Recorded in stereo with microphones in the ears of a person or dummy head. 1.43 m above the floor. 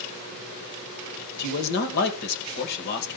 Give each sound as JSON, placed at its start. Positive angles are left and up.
{"t": 1.4, "sound": "a man speaking", "side_deg": 65, "distance_m": 1.6}